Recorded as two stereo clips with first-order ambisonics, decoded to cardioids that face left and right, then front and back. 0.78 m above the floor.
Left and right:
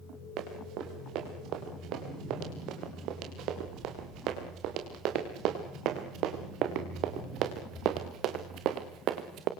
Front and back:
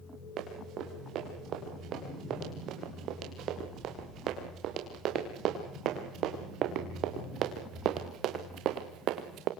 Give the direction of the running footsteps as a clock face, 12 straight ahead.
4 o'clock.